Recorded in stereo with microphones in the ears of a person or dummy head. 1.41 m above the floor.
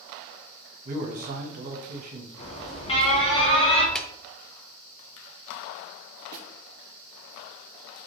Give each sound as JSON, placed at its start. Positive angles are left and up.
{"t": 0.8, "sound": "a man speaking", "side_deg": -45, "distance_m": 0.9}
{"t": 2.4, "sound": "an alarm", "side_deg": 35, "distance_m": 1.2}
{"t": 4.0, "sound": "a clap", "side_deg": 5, "distance_m": 0.6}
{"t": 6.3, "sound": "a snare drum", "side_deg": -45, "distance_m": 0.7}